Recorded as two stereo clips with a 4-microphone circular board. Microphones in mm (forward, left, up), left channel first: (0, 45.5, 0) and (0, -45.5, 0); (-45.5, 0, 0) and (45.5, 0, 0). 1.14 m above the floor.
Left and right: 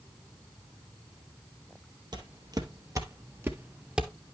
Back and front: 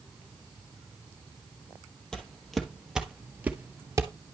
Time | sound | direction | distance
2.1 | footsteps | 100° right | 1.7 m